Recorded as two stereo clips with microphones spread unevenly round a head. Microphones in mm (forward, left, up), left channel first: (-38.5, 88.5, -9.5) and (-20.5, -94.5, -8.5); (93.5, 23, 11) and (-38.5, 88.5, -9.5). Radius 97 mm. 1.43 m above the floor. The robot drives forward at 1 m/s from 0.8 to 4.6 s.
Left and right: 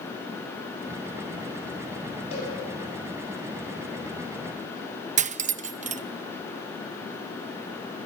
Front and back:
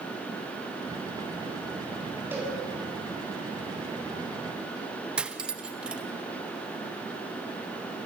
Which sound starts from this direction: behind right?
Cutlery clinking, at 5.2 s.